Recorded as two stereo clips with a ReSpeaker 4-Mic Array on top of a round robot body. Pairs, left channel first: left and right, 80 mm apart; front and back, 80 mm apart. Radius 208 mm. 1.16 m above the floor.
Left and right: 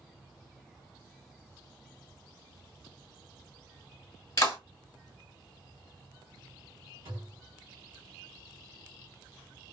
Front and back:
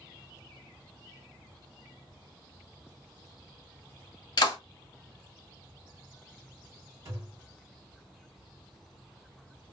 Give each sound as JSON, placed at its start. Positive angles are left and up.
{"t": 4.4, "sound": "a clap", "azimuth_deg": 35, "distance_m": 1.3}
{"t": 7.0, "sound": "a thud", "azimuth_deg": -130, "distance_m": 0.8}